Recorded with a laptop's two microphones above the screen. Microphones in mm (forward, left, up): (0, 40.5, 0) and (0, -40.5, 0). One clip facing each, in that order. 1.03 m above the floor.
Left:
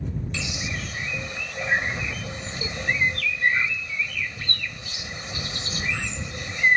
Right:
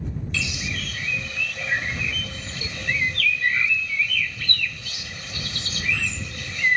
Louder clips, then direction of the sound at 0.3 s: Right 1 dB; 25° left (ahead or behind).